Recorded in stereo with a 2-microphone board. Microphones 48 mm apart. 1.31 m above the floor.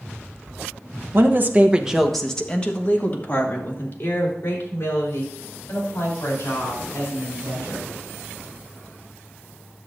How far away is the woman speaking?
About 1.1 m.